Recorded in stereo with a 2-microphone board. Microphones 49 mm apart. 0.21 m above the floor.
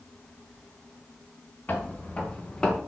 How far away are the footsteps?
About 1.9 m.